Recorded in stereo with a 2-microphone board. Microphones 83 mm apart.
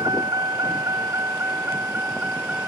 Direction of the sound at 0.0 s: 55° right (ahead or behind).